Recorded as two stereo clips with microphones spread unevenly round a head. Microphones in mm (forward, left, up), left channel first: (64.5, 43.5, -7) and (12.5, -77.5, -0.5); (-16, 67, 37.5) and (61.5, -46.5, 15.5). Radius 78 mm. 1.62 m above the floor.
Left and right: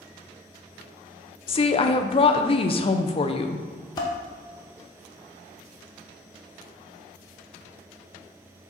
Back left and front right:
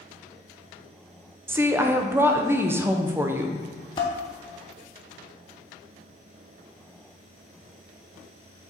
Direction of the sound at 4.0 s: 115° left.